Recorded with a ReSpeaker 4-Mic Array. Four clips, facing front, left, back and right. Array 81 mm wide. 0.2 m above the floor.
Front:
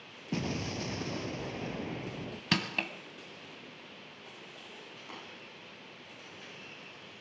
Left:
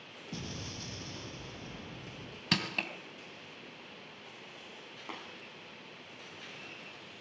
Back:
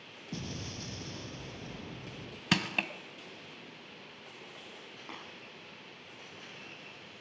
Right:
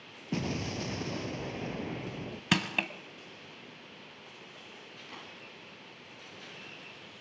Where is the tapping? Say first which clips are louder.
Left 4 dB, back 1 dB; 115° left, 8 m.